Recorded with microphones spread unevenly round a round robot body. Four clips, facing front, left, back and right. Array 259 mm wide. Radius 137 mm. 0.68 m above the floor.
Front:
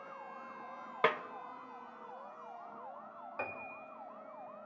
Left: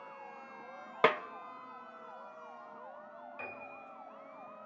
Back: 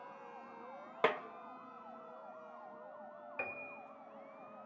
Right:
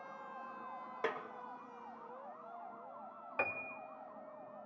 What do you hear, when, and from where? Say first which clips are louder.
1.0 s a snare drum: left 11 dB, front 2 dB; 90° left, 0.6 m
3.4 s a piano: right 8 dB, front 3 dB; 70° right, 1.3 m